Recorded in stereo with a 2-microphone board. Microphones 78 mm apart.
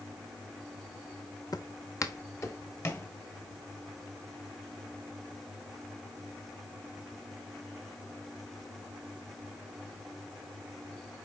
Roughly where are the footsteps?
Left.